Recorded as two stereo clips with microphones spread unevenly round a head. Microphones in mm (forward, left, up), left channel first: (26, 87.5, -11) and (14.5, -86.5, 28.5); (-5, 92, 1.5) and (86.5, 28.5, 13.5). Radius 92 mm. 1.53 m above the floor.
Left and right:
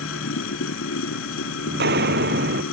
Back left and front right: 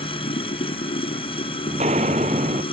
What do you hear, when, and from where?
0.0 s running water: 110° left
1.7 s footsteps: 80° right